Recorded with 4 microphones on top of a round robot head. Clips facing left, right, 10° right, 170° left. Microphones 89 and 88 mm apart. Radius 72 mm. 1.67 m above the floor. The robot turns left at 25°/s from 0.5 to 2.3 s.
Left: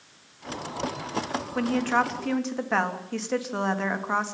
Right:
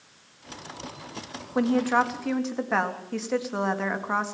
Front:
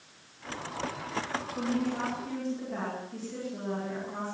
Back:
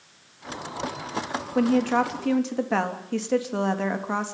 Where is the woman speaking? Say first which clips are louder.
Right 2 dB, back 11 dB; 160° right, 3.5 m; by 4.3 s straight behind, 3.5 m.